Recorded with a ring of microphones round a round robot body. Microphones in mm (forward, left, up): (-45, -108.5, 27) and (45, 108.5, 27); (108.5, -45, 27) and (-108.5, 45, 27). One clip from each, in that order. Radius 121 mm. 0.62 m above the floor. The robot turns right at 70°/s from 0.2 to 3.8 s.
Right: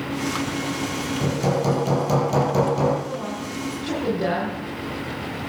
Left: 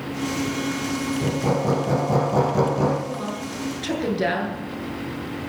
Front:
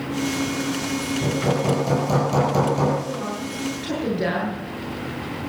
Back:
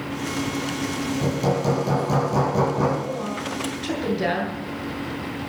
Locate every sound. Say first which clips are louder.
1.2 s hammering: right 1 dB, even; 160° right, 6.5 m; by 3.0 s 35° right, 6.5 m
3.0 s a woman speaking: even, back 1 dB; 25° left, 8.5 m; by 4.6 s 80° left, 8.5 m